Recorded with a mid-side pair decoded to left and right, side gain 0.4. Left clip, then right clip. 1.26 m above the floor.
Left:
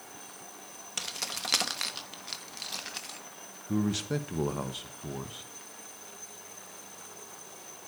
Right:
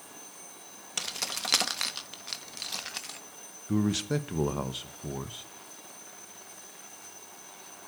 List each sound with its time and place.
1.0 s keys jangling: 20° right, 1.0 m
3.7 s a man speaking: 25° right, 1.1 m